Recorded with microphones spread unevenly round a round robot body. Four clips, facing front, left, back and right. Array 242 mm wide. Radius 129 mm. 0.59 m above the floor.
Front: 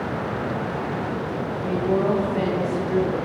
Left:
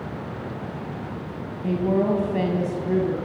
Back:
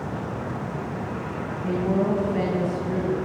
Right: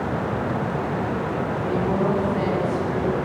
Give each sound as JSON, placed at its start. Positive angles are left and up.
{"t": 1.6, "sound": "a woman speaking", "azimuth_deg": 110, "distance_m": 4.0}